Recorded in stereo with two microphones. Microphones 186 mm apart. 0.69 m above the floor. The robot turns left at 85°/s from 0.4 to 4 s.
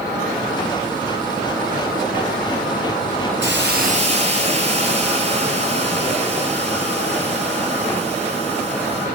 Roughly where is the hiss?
Right.